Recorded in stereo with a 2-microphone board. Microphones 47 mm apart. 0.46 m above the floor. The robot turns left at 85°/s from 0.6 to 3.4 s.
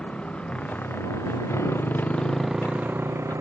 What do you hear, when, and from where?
0.0 s a motorcycle: 25° left (ahead or behind); by 3.4 s 85° right